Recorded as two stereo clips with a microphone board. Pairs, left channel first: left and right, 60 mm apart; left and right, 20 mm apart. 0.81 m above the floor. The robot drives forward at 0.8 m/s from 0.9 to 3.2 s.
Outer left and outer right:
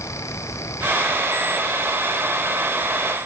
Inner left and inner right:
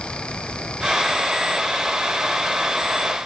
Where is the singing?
No singing in this recording.